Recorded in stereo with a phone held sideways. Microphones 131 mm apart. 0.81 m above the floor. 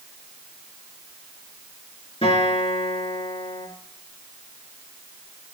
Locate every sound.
2.2 s a guitar: 50° left (ahead or behind), 3.5 m